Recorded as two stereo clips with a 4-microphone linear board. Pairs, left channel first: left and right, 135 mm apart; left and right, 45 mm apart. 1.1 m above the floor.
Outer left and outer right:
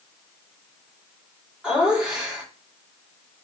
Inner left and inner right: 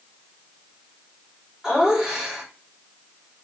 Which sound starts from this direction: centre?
Laughter, at 1.6 s.